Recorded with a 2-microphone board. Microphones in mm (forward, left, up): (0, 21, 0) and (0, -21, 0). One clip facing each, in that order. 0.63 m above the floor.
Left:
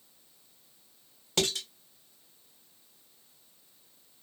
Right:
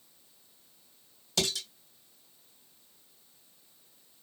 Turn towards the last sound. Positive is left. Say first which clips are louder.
# left 2 dB
turn(degrees=40)  # may be behind; listen again after turning